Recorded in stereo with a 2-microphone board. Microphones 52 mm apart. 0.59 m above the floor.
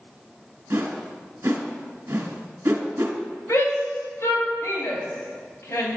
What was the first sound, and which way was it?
A whoosh, 65° right (ahead or behind).